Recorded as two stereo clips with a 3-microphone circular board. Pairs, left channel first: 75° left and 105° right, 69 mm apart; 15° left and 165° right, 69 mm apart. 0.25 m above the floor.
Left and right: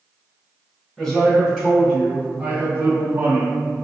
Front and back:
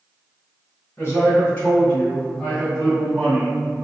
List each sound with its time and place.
1.0 s a man speaking: 5° left, 1.6 m; by 3.6 s 85° right, 1.8 m